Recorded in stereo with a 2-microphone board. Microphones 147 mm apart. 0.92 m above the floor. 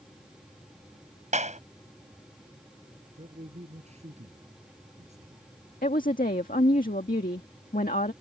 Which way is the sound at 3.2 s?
50° right (ahead or behind).